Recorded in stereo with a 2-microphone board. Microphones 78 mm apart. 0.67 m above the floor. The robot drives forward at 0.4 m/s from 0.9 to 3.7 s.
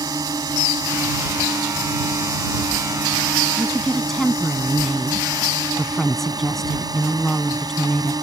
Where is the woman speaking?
5° left (ahead or behind).